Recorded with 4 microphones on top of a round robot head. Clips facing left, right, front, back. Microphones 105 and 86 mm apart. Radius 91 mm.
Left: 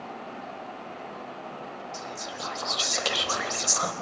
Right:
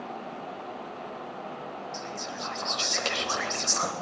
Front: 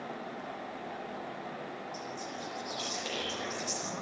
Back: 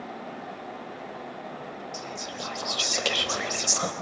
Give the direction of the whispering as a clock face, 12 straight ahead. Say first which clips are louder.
Even, back 4 dB; 6 o'clock.